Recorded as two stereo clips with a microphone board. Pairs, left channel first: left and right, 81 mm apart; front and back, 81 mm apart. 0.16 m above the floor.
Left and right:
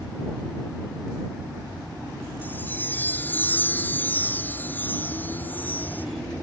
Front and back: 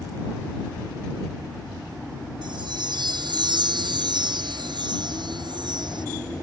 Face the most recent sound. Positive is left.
turn(degrees=160)